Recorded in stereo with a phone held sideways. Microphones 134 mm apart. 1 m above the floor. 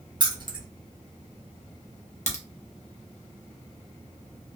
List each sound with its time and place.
0.2 s keys jangling: 35° right (ahead or behind), 0.7 m
2.3 s a crack: 60° left (ahead or behind), 0.7 m